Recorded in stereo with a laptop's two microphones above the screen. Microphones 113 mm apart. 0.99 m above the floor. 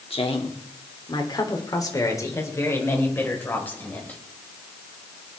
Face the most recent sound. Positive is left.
turn(degrees=15)  # may be behind; listen again after turning